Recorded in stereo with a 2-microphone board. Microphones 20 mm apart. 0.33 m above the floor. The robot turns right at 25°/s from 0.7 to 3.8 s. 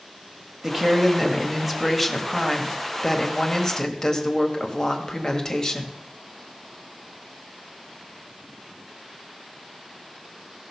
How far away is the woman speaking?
About 1.6 m.